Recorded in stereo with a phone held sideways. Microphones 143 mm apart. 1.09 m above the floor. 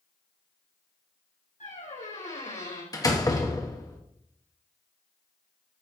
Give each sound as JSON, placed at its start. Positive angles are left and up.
{"t": 1.6, "sound": "a squeak", "side_deg": 65, "distance_m": 4.5}
{"t": 2.9, "sound": "a door slam", "side_deg": 25, "distance_m": 1.2}